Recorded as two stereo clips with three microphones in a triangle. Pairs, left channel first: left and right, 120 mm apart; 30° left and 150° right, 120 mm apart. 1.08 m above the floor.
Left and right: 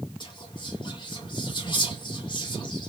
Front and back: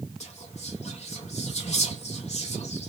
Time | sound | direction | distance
0.2 | whispering | 45° left | 1.2 m